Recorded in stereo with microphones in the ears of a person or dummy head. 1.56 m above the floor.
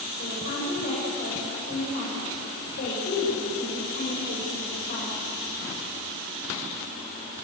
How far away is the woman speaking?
About 7 m.